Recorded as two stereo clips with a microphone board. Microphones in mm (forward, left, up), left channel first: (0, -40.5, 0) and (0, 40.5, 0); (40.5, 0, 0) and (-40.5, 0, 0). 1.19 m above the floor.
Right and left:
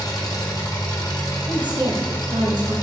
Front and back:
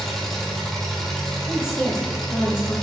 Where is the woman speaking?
60° left, 0.9 m.